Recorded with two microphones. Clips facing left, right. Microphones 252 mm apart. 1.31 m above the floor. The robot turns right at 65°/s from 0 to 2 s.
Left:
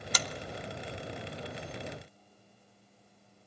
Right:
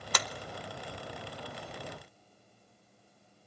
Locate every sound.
0.1 s a clap: 60° right (ahead or behind), 0.8 m; by 0.3 s 70° right (ahead or behind), 0.8 m